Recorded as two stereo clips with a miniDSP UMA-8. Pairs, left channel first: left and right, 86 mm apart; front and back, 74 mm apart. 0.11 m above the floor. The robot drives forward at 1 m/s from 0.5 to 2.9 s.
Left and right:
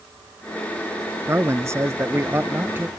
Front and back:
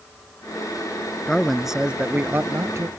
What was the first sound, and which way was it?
A man speaking, 70° right.